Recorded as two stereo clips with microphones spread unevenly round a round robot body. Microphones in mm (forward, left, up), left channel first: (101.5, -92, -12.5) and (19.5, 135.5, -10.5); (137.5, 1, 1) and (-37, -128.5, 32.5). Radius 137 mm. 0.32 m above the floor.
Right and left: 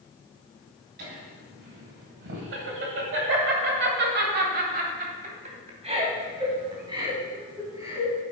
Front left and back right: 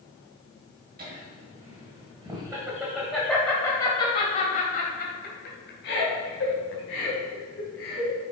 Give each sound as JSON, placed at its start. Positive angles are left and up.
{"t": 1.0, "sound": "laughter", "azimuth_deg": 160, "distance_m": 2.0}